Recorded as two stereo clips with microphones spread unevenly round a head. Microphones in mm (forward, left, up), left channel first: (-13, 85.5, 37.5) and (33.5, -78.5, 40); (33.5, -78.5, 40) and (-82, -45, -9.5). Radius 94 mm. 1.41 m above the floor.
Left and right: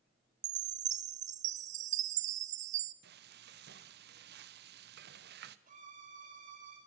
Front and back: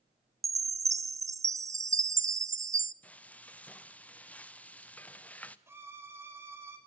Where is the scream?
I don't hear a scream.